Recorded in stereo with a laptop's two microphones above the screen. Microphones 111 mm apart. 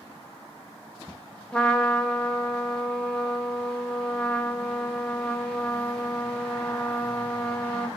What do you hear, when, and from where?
1.5 s a trumpet: 10° left (ahead or behind), 0.6 m